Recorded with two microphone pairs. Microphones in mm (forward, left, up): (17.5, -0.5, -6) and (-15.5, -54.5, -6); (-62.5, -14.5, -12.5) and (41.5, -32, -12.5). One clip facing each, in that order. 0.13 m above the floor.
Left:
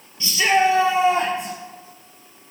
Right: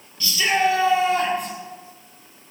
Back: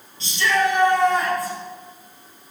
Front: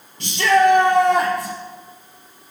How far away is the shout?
About 2 m.